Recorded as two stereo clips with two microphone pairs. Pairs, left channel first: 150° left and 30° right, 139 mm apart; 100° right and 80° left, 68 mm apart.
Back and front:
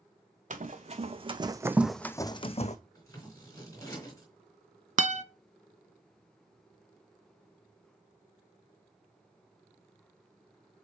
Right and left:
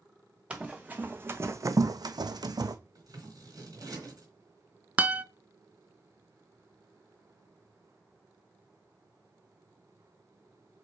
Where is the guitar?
5° left, 0.5 m.